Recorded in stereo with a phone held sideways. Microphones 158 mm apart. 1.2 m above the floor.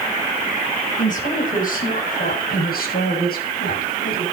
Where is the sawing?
No sawing in this recording.